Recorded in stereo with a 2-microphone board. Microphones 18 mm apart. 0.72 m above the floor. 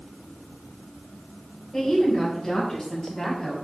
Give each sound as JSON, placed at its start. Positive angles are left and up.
{"t": 1.7, "sound": "a woman speaking", "side_deg": 20, "distance_m": 4.0}